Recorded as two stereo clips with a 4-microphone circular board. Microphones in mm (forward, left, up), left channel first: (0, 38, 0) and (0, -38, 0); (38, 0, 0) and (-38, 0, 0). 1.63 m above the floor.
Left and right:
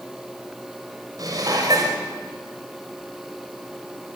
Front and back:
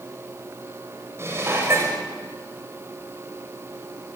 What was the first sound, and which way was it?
Dishes clattering, 125° right.